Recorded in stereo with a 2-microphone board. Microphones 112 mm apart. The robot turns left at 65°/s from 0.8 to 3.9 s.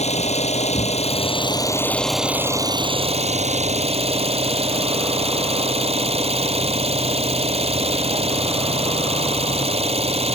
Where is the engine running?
85° left; by 10.4 s 115° right.